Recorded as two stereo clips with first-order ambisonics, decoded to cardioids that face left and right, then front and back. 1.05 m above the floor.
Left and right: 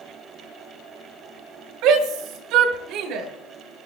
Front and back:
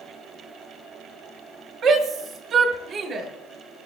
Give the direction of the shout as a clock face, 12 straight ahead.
4 o'clock.